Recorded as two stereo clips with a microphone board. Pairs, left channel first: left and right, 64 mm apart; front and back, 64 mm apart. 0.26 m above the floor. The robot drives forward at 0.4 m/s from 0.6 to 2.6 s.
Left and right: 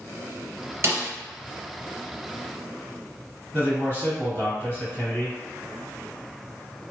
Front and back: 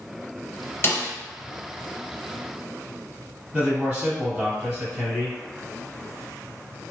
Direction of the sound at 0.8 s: 50° right.